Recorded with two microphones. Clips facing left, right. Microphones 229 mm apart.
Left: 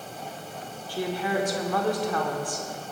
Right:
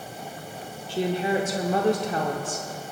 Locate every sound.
0.9 s a woman speaking: 25° right (ahead or behind), 0.7 m